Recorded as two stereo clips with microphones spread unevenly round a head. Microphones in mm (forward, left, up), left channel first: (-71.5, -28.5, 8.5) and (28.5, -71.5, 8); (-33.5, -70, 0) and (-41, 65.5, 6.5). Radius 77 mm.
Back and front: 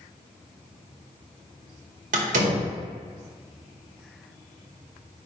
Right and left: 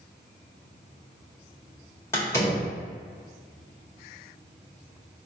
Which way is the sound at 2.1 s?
15° right.